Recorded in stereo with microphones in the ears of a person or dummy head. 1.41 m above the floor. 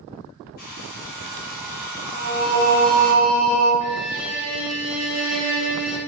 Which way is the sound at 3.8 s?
65° right (ahead or behind).